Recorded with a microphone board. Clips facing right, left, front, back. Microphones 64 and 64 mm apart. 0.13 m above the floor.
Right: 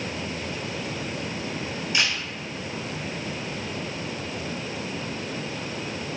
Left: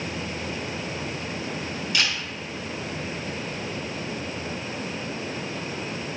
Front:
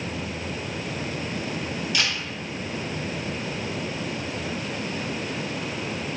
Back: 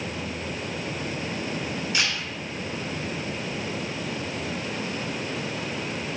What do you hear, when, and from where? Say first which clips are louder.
1.9 s a camera shutter: right 1 dB, front 1 dB; 135° right, 1.8 m